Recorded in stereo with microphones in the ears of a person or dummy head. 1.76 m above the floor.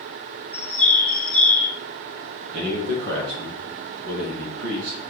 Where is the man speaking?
65° right (ahead or behind), 1.4 m.